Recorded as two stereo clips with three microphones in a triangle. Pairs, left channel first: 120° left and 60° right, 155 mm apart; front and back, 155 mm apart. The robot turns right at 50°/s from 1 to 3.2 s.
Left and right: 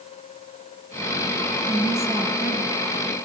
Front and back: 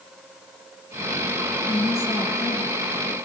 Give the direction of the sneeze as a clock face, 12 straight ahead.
No sneeze in this recording.